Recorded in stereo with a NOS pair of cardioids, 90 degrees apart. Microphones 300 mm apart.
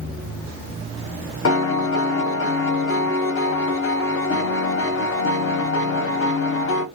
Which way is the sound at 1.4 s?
45° left.